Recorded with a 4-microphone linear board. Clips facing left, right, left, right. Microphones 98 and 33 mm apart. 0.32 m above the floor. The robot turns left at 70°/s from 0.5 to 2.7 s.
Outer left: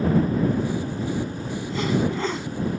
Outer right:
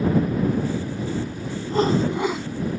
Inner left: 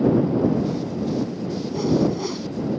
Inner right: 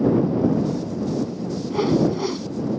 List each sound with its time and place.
1.7 s a whoosh: 130° right; by 2.5 s straight behind